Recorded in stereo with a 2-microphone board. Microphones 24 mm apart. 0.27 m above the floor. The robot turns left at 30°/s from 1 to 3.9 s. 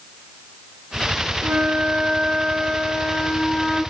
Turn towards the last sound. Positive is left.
turn(degrees=-170)